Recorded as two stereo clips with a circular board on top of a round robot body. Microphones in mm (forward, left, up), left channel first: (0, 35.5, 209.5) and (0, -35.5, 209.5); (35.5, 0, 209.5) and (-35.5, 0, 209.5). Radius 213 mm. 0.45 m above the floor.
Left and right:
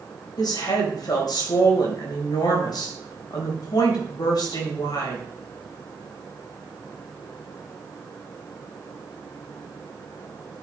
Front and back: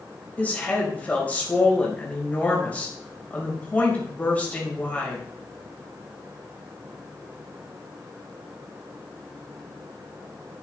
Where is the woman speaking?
70° left, 4 m.